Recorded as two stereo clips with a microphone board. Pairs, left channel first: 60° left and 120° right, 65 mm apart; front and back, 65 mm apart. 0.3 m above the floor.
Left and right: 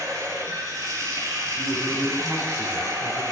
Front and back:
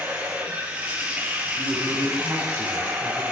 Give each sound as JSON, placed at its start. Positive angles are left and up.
{"t": 0.0, "sound": "running water", "azimuth_deg": -115, "distance_m": 5.0}
{"t": 1.6, "sound": "a man speaking", "azimuth_deg": -160, "distance_m": 3.5}